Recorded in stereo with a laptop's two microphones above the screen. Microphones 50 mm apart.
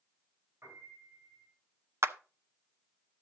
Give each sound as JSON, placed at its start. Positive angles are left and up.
{"t": 0.6, "sound": "a piano", "side_deg": -55, "distance_m": 7.5}
{"t": 2.0, "sound": "a clap", "side_deg": -55, "distance_m": 0.8}